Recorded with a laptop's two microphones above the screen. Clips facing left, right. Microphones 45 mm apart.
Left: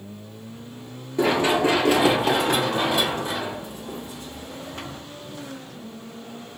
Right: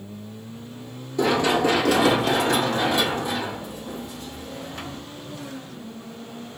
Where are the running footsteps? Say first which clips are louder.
Even; 25° left (ahead or behind), 1.2 m.